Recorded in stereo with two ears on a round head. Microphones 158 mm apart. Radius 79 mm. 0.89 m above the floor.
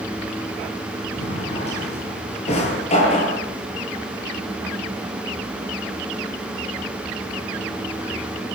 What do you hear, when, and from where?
1.2 s a drawer: 40° left (ahead or behind), 8.5 m